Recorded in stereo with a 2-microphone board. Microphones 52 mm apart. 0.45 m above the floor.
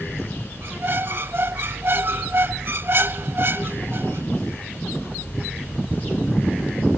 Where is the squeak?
50° right (ahead or behind).